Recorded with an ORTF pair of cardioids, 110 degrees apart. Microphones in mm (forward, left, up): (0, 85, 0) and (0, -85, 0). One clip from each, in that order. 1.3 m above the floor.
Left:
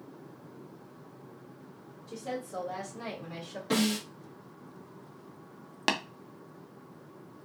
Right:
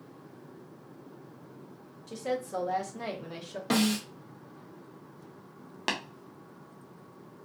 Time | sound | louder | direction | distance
2.1 | a woman speaking | right 5 dB | 65° right | 1.4 m
3.7 | a snare drum | right 1 dB | 45° right | 1.3 m
5.9 | tapping | left 3 dB | 15° left | 0.6 m